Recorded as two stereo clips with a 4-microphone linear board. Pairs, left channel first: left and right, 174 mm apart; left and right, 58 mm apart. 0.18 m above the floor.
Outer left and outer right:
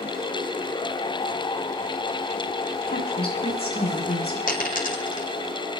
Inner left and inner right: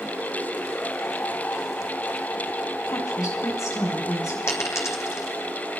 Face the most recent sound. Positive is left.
turn(degrees=55)  # may be behind; listen again after turning